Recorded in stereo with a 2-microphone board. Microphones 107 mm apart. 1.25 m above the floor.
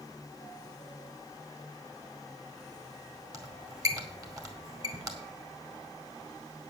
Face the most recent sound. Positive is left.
turn(degrees=-30)  # may be behind; listen again after turning